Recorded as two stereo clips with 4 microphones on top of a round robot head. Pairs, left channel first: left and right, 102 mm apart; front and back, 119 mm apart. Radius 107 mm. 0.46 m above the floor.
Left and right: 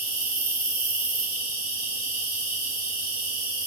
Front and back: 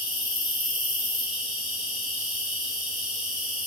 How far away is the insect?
About 2.5 m.